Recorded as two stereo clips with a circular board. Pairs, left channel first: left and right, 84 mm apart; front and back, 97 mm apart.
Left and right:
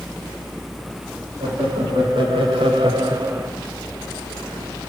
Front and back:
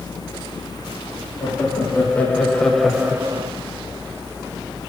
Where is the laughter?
70° right, 3 m; by 3.5 s 165° right, 0.7 m.